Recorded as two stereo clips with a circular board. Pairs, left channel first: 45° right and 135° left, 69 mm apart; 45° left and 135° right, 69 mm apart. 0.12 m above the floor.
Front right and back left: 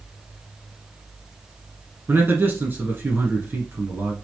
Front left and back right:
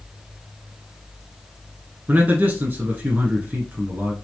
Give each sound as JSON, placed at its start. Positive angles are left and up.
{"t": 2.1, "sound": "a man speaking", "azimuth_deg": 170, "distance_m": 1.5}